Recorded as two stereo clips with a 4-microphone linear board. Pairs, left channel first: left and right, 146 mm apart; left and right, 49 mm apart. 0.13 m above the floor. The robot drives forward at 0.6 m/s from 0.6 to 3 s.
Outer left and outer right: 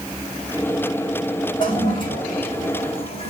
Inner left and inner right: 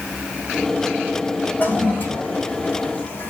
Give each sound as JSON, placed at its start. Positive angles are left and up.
{"t": 1.6, "sound": "a toilet flushing", "side_deg": 35, "distance_m": 5.0}